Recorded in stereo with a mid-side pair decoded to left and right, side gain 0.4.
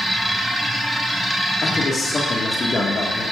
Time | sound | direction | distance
0.0 | a machine running | 5° right | 3 m
1.6 | a man speaking | 40° left | 1.9 m